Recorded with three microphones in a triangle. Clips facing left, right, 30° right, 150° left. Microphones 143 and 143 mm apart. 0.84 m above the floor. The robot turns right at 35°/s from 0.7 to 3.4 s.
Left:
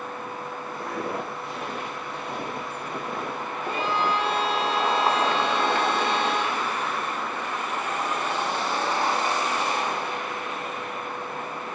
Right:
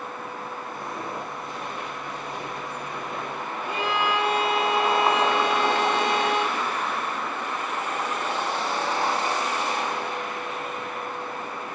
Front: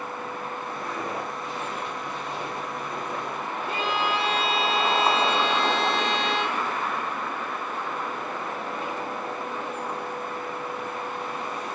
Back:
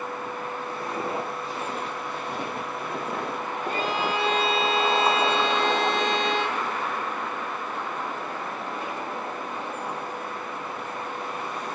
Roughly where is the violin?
Behind.